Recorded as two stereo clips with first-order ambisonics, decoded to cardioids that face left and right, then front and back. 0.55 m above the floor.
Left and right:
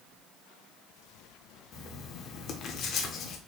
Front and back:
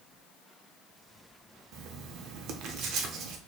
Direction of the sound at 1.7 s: 140° left.